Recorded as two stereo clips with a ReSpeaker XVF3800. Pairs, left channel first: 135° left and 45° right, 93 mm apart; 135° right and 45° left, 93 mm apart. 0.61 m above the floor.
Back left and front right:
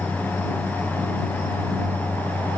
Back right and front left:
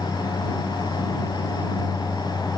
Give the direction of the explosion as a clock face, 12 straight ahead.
I don't hear an explosion.